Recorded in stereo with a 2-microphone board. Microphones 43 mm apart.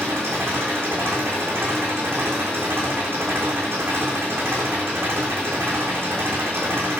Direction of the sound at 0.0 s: 75° right (ahead or behind).